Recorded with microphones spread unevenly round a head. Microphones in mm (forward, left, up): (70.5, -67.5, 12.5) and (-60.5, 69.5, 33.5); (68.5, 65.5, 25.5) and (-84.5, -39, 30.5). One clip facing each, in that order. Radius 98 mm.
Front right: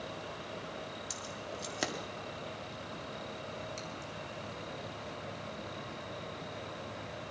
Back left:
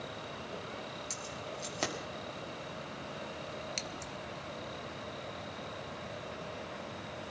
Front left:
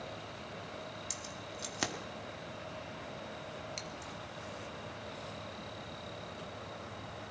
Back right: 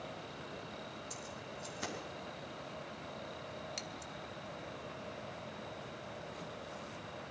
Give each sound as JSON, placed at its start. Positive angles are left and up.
{"t": 1.1, "sound": "keys jangling", "azimuth_deg": 30, "distance_m": 1.7}
{"t": 3.8, "sound": "scissors", "azimuth_deg": 135, "distance_m": 0.9}